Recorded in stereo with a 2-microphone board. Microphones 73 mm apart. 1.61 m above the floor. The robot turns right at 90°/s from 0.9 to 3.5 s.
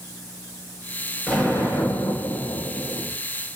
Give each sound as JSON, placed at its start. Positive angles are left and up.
{"t": 1.3, "sound": "an explosion", "azimuth_deg": 0, "distance_m": 7.5}